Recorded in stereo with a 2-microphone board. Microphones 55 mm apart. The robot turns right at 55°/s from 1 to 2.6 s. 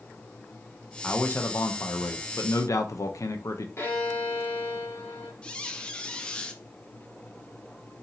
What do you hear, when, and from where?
1.0 s a man speaking: 25° left, 0.6 m; by 3.7 s 110° left, 0.6 m
3.8 s a violin: 50° left (ahead or behind), 1.5 m
5.4 s a squeak: 20° left (ahead or behind), 0.6 m